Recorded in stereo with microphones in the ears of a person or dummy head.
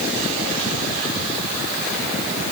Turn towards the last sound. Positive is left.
No sound to turn to.